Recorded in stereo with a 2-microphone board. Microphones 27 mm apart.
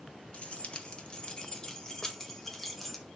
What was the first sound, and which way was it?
Keys jangling, 50° left (ahead or behind).